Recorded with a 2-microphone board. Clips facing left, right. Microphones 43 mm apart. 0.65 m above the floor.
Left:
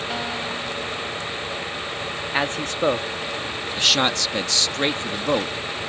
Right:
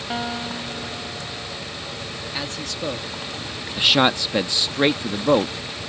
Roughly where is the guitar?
Centre.